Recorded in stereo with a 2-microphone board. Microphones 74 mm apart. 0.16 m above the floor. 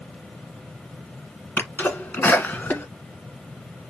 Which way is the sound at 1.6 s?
25° left (ahead or behind).